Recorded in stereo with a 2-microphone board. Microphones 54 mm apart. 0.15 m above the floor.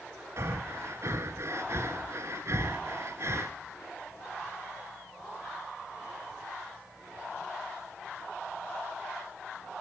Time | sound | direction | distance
0.4 | breathing | 55° right (ahead or behind) | 0.9 m